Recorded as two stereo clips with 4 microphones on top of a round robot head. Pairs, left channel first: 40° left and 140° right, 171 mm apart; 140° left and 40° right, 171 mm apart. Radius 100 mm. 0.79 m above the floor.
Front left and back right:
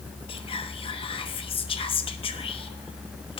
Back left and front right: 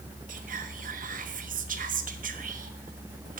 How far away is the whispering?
About 1.2 m.